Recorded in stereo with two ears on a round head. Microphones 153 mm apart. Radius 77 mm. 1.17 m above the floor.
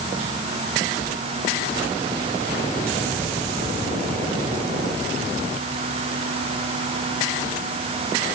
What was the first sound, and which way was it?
Only background noise.